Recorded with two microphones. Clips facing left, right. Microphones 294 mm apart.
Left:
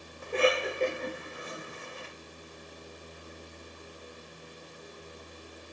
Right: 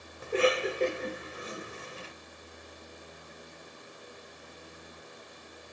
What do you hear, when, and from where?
0.2 s a cough: 30° right (ahead or behind), 1.3 m